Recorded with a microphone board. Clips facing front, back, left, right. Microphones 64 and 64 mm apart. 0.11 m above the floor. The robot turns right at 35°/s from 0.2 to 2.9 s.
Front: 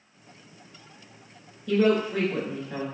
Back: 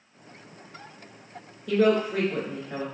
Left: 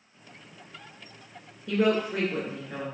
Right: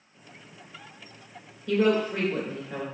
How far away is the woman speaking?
About 1.1 m.